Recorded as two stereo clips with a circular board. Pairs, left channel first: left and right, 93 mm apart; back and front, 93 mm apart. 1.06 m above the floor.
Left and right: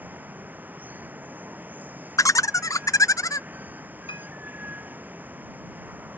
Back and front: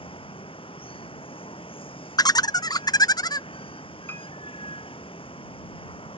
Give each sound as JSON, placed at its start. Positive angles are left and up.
{"t": 0.0, "sound": "running water", "azimuth_deg": -160}
{"t": 2.2, "sound": "laughter", "azimuth_deg": 140}
{"t": 4.1, "sound": "a piano", "azimuth_deg": 115}